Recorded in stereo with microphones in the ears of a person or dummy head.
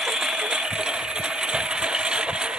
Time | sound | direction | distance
0.0 | a lawn mower | 10° right (ahead or behind) | ?